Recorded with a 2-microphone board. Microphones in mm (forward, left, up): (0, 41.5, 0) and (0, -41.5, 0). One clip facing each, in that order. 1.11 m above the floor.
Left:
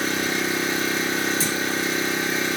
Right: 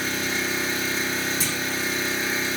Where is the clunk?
35° left (ahead or behind), 0.9 m.